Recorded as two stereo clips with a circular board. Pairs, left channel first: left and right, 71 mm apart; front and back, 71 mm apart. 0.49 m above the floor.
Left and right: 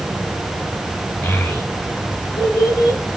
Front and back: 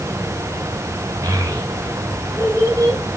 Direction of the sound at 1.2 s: 140° left.